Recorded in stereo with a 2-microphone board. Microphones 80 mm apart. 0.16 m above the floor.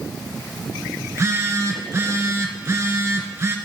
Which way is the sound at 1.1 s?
35° right (ahead or behind).